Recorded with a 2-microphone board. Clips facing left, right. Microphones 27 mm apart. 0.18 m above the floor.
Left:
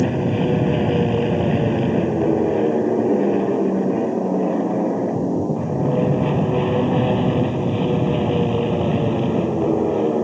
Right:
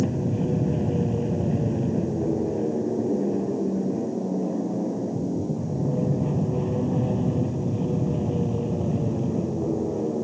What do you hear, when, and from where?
0.0 s an aircraft: 60° left (ahead or behind); by 10.2 s 65° left (ahead or behind)